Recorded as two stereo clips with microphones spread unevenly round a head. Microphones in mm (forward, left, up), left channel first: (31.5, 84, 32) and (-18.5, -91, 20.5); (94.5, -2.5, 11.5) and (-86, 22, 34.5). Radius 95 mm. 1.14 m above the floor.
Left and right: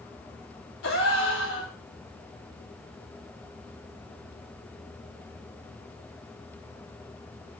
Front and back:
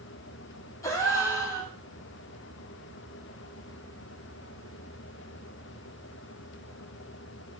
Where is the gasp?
65° left, 4 m.